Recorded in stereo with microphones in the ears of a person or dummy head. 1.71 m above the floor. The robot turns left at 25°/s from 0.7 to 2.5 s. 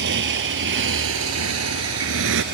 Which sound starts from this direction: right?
A motorcycle, at 0.0 s.